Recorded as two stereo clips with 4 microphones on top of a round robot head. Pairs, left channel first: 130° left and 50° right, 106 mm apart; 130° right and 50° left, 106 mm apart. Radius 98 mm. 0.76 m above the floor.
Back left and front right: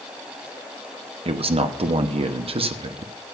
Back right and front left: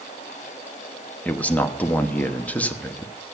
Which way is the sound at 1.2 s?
55° right.